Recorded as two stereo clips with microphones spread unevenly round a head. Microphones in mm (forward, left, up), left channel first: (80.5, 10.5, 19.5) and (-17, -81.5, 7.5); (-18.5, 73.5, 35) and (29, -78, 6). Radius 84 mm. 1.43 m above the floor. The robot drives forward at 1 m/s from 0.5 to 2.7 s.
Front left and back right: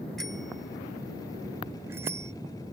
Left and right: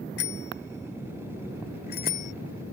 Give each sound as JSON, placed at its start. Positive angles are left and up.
{"t": 0.2, "sound": "a bicycle bell", "azimuth_deg": 130}